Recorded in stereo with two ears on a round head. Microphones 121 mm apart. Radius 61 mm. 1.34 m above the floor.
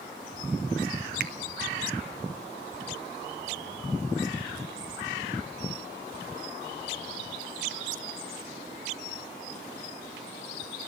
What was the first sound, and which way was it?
A finger snap, 75° right (ahead or behind).